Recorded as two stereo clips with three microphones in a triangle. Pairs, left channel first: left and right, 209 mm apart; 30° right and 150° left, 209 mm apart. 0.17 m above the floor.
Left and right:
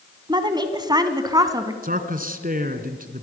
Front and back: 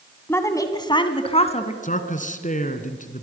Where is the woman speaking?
85° right, 1.6 m; by 1.7 s 30° right, 1.8 m.